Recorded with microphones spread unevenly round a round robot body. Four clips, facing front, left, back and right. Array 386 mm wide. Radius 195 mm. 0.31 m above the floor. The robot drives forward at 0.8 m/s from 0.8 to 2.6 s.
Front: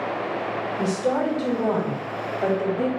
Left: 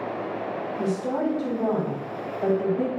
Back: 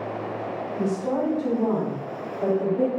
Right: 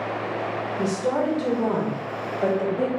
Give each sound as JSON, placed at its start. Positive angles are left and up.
{"t": 0.8, "sound": "a woman speaking", "azimuth_deg": -65, "distance_m": 1.6}